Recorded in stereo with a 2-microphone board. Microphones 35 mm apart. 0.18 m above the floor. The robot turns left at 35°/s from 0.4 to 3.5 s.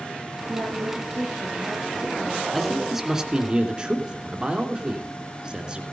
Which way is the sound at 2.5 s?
5° left.